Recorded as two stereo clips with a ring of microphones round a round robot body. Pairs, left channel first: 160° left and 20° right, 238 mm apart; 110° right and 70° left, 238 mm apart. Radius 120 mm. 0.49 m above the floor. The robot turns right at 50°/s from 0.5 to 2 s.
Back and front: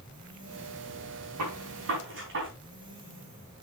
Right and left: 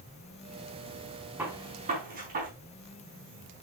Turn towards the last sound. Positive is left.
turn(degrees=15)